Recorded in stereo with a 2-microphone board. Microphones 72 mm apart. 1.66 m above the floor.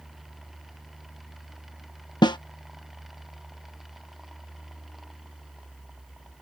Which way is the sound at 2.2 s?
80° left.